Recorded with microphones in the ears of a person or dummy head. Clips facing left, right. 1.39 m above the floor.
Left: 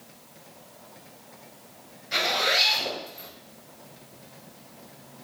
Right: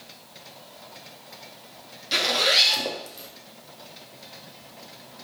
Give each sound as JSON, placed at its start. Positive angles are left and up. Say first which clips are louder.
{"t": 2.1, "sound": "a zipper", "louder": "right 2 dB", "side_deg": -45, "distance_m": 0.7}